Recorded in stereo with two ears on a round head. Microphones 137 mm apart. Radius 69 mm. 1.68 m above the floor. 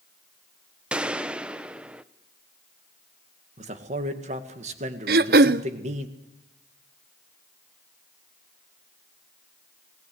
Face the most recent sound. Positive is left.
turn(degrees=-65)  # may be behind; listen again after turning